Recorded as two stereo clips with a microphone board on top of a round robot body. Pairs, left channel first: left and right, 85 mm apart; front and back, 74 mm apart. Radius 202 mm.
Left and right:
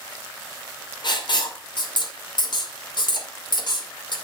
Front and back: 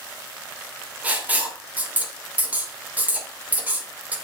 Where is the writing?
110° left, 2.5 m.